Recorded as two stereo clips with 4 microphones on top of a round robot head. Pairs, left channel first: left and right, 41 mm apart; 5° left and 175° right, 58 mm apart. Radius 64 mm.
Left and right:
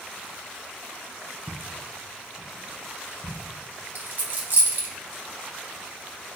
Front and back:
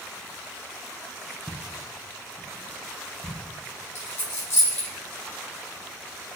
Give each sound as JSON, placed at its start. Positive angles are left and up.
{"t": 1.5, "sound": "footsteps", "azimuth_deg": 90, "distance_m": 0.5}
{"t": 4.0, "sound": "a dropped coin", "azimuth_deg": -50, "distance_m": 1.1}